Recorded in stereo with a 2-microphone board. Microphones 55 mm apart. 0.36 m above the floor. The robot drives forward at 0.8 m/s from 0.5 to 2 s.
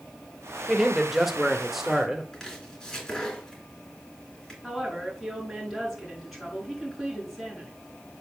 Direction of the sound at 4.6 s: 5° right (ahead or behind).